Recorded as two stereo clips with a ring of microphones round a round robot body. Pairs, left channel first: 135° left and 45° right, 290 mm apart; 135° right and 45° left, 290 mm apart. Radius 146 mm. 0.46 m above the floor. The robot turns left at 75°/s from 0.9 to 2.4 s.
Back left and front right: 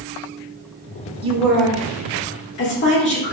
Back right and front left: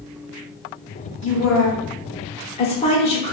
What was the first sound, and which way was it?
A woman speaking, 110° right.